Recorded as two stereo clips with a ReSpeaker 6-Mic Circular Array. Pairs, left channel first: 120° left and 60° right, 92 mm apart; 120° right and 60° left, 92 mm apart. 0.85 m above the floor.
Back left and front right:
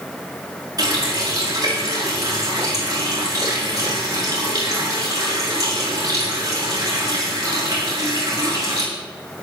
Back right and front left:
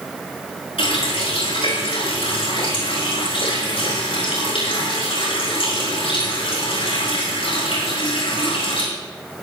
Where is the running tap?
110° right, 6.5 m.